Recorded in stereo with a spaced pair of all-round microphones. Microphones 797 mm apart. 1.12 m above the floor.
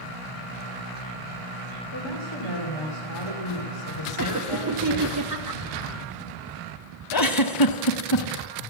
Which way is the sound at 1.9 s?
35° left (ahead or behind).